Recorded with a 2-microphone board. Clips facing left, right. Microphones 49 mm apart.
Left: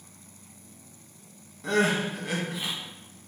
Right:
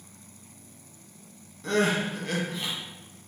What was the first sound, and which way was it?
Crying, 5° left (ahead or behind).